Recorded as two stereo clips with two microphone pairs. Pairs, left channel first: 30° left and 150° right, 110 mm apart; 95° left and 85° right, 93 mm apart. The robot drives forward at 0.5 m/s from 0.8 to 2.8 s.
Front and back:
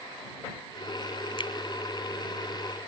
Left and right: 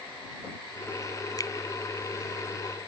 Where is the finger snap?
60° left.